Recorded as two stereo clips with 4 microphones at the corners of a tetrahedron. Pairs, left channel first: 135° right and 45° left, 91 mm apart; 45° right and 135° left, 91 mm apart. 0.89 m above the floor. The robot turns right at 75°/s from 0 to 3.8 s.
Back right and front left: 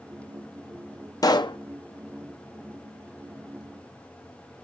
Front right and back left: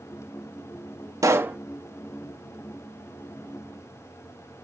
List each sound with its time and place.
1.2 s a pop: straight behind, 0.6 m; by 1.6 s 150° right, 0.6 m